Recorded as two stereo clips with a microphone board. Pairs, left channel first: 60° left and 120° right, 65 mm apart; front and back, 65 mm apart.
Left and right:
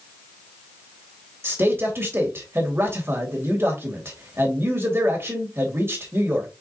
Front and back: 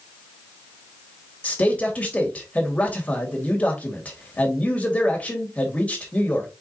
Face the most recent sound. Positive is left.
turn(degrees=-70)